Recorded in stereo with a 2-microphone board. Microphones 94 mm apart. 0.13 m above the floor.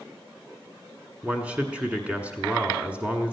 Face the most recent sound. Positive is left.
turn(degrees=-15)  # may be behind; listen again after turning